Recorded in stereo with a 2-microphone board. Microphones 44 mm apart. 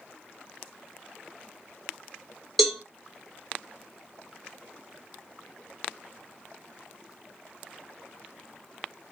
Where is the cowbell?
5° left (ahead or behind), 1.0 m.